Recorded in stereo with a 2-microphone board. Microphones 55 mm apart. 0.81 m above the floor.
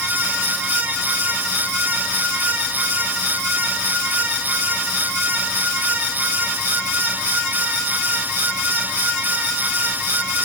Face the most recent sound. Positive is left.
No sound to turn to.